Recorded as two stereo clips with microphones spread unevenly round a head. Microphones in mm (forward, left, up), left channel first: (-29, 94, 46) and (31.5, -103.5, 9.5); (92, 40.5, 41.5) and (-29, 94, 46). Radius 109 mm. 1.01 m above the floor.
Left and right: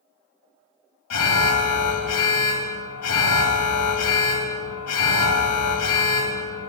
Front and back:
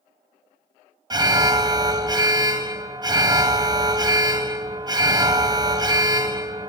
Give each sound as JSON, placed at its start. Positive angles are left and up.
{"t": 1.1, "sound": "an alarm", "azimuth_deg": 95, "distance_m": 1.0}